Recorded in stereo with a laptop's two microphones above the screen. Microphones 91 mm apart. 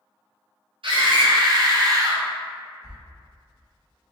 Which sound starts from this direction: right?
A scream, at 0.8 s.